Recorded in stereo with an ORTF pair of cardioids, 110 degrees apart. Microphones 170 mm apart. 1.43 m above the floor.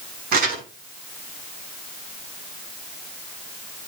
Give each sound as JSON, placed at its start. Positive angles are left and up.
{"t": 0.3, "sound": "crumpling", "azimuth_deg": -65, "distance_m": 6.0}